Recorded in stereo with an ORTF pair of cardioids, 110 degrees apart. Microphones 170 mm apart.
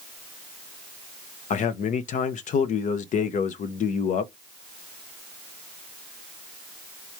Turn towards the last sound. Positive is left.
turn(degrees=50)